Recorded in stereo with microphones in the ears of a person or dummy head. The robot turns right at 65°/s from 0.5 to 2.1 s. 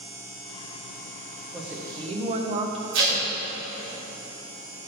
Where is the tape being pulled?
70° right (ahead or behind), 1.8 m.